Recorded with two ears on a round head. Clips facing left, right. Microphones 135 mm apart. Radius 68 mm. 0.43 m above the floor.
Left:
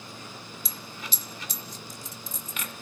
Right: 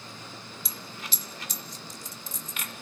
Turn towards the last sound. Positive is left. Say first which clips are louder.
# even
turn(degrees=80)